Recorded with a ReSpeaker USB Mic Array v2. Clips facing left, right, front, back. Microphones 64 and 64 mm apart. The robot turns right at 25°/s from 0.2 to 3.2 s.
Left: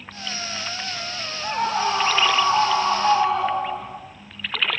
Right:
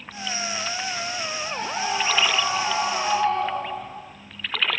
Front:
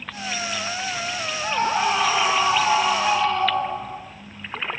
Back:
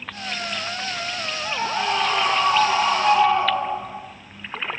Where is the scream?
60° left, 5.5 m; by 4.0 s 105° left, 5.5 m.